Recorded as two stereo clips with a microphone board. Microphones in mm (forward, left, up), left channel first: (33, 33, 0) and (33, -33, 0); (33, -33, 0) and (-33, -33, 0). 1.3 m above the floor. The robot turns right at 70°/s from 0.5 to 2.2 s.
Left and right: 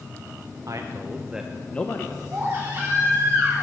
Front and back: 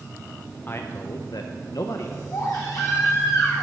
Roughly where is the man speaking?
Ahead right.